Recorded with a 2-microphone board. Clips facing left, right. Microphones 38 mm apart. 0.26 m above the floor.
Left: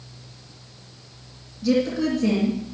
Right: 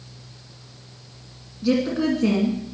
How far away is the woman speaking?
About 2.5 m.